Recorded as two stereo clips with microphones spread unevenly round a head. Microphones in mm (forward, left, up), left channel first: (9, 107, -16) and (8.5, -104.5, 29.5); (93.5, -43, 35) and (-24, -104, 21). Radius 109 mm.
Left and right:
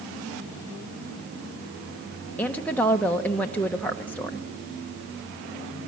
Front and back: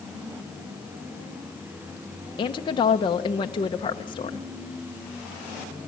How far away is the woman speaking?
About 0.7 m.